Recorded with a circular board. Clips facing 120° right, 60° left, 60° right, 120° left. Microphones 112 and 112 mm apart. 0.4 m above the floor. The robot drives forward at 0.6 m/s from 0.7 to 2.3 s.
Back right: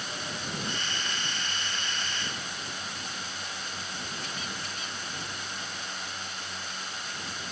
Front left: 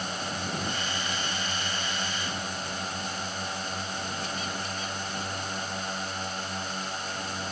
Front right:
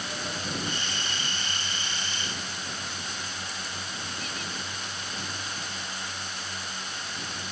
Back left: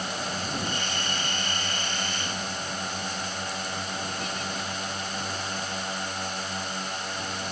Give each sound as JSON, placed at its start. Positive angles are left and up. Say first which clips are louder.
{"t": 0.0, "sound": "a drone", "louder": "front left 4 dB, back left 3 dB", "azimuth_deg": 90}